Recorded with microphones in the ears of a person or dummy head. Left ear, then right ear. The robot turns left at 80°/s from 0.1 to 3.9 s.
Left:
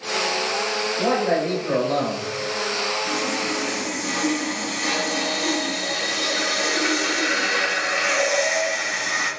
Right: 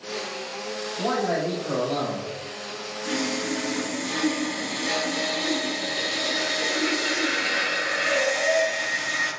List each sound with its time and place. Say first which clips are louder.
1.0 s a man speaking: left 2 dB; 145° left, 1.5 m; by 2.3 s 40° left, 1.5 m
3.0 s sawing: left 4 dB; 165° right, 1.3 m; by 9.3 s 130° left, 1.3 m